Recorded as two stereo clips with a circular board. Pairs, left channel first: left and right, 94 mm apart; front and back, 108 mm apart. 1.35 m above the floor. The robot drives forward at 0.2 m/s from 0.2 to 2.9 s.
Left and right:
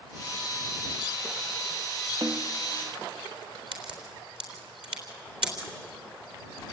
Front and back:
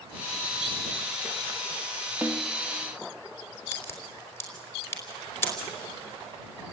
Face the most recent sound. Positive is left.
turn(degrees=-65)